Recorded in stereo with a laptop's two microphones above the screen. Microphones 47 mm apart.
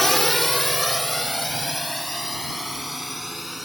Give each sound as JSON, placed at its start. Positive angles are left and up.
{"t": 0.0, "sound": "a drone", "side_deg": 5}